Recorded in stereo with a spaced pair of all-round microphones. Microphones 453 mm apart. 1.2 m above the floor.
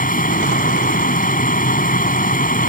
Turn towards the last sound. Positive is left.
turn(degrees=20)  # may be behind; listen again after turning